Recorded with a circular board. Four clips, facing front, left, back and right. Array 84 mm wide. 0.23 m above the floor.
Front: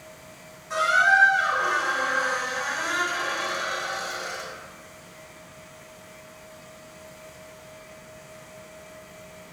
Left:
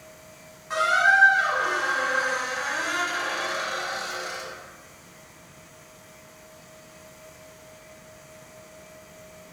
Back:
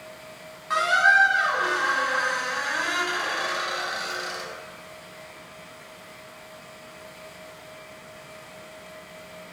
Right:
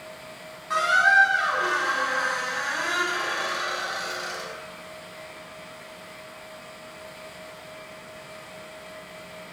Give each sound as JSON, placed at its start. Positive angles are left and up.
{"t": 0.7, "sound": "a squeak", "azimuth_deg": -165, "distance_m": 0.8}